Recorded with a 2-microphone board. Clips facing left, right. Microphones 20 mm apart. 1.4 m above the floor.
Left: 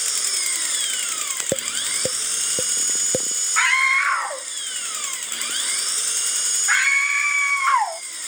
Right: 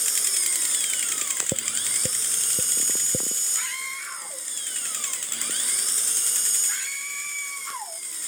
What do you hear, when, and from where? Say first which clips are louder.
0.0 s an engine running: left 3 dB; 30° left (ahead or behind)
1.5 s tapping: left 4 dB; 55° left (ahead or behind)
3.6 s a scream: left 14 dB; 80° left